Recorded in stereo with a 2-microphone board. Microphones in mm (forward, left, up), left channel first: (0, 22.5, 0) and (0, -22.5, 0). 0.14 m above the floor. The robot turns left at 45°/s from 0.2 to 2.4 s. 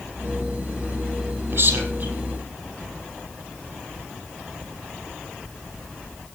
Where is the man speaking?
65° right (ahead or behind), 5.5 m; by 2.1 s 40° right (ahead or behind), 5.5 m.